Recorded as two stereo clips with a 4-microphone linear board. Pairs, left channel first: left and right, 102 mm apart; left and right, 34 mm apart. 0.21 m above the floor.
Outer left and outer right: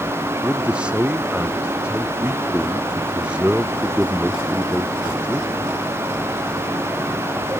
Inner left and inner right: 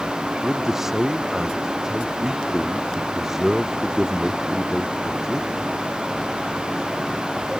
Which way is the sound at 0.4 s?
10° right (ahead or behind).